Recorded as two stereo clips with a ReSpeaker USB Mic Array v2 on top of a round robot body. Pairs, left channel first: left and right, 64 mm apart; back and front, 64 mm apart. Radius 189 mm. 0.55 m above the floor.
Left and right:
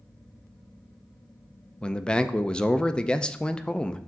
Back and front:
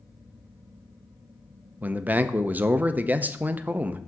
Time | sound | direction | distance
1.8 | a man speaking | 30° left | 0.6 m